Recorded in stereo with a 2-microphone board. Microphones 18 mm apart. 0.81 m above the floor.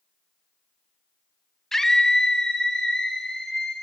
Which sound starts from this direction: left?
A scream, at 1.7 s.